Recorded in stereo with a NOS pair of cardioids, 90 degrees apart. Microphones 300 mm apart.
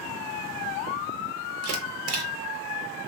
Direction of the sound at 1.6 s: 55° right.